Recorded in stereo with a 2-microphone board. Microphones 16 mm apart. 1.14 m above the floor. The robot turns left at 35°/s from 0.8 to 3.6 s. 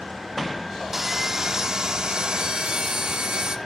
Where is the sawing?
20° right, 1.1 m; by 3.6 s 110° right, 1.1 m.